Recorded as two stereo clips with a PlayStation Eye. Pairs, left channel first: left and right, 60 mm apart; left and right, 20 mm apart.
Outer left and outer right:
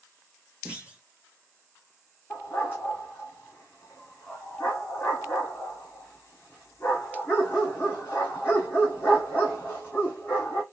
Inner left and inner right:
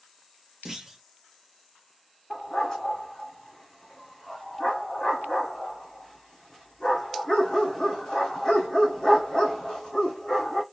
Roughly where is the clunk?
Centre.